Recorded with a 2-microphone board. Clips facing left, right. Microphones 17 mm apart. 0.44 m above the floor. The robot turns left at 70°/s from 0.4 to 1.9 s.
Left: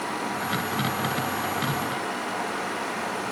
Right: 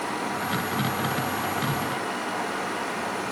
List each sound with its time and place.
Only background noise.